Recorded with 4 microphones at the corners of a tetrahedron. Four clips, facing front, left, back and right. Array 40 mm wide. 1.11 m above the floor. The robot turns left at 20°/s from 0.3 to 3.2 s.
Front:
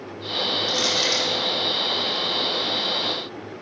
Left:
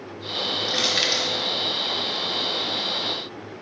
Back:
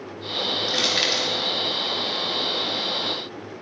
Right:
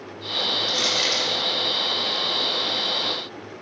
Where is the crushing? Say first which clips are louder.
Even, back 2 dB; 140° left, 3.5 m; by 1.3 s 130° left, 3.5 m.